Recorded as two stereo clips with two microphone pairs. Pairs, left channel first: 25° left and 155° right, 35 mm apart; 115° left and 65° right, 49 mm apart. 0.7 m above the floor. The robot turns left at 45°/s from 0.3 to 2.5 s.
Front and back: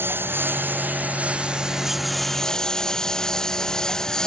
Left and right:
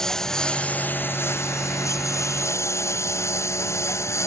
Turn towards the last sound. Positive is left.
turn(degrees=95)